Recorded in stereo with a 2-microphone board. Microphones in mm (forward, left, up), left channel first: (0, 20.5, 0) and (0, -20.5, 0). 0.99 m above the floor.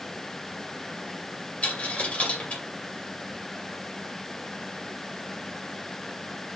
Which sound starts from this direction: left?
A dropped coin, at 1.6 s.